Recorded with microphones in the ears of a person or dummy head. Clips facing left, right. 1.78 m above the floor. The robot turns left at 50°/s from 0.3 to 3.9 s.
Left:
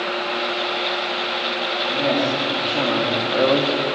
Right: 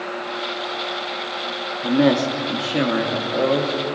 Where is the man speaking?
95° right, 3 m; by 3.9 s 165° left, 3 m.